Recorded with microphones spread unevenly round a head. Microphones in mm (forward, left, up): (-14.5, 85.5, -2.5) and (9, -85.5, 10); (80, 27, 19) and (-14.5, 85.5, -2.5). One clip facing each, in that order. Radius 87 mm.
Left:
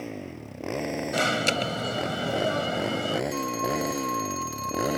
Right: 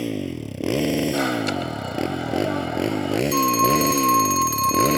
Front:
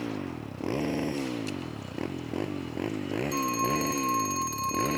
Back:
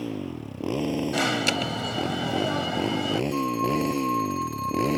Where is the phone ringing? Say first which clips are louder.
Right 8 dB, back 3 dB; 95° right.